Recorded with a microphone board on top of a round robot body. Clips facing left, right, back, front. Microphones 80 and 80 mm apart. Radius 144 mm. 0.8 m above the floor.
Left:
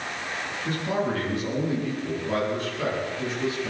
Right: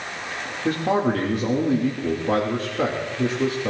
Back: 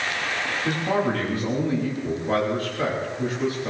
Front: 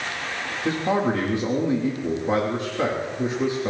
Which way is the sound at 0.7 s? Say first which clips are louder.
Right 6 dB, front 2 dB; 65° right.